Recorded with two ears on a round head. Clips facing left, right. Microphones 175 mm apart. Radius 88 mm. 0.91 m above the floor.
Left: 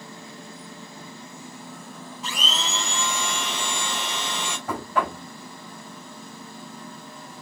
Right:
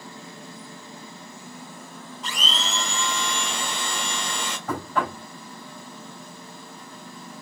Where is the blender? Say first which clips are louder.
Even; 5° left (ahead or behind), 3.5 m.